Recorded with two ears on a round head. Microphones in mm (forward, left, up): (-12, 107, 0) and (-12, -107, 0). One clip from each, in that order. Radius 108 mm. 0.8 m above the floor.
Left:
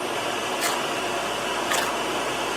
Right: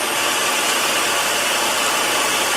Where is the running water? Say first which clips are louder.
Right 8 dB; 55° right (ahead or behind), 1.2 m.